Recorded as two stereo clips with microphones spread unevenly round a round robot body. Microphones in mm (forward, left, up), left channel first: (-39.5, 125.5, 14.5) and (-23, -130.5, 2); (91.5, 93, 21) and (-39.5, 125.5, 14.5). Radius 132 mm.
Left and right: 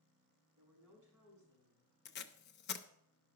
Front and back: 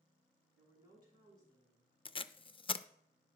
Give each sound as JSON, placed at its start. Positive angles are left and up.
{"t": 0.6, "sound": "a woman speaking", "azimuth_deg": -5, "distance_m": 6.0}
{"t": 2.0, "sound": "tape being pulled", "azimuth_deg": 40, "distance_m": 0.5}